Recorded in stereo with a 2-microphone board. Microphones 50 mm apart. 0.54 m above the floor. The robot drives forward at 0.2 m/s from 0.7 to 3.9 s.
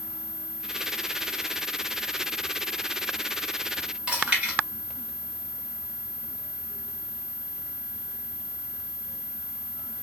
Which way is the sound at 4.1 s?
20° right (ahead or behind).